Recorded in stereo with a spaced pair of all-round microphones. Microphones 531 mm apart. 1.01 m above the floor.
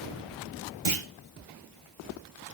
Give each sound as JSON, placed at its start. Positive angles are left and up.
{"t": 0.8, "sound": "a clunk", "side_deg": -65, "distance_m": 1.0}